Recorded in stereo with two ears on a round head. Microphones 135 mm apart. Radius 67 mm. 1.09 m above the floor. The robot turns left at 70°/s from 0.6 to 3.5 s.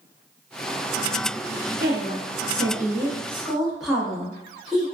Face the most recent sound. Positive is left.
turn(degrees=-175)